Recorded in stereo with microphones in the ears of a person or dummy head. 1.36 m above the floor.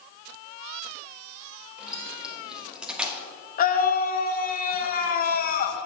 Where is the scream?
50° left (ahead or behind), 1.8 m.